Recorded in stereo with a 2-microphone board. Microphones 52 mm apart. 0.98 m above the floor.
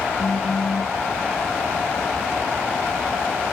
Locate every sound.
0.2 s a phone buzzing: 80° left